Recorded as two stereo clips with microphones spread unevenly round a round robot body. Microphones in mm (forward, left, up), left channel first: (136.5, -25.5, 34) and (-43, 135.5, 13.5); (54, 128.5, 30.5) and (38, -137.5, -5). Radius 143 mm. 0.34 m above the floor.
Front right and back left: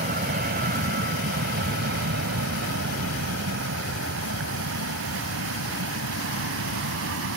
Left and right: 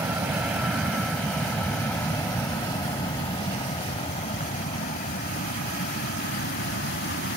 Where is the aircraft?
175° right; by 7.4 s 135° left.